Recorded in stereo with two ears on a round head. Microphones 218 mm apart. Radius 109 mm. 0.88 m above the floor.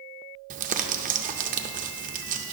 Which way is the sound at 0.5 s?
35° right (ahead or behind).